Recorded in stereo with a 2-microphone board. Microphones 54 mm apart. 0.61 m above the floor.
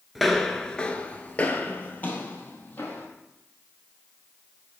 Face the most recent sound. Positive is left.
turn(degrees=30)  # may be behind; listen again after turning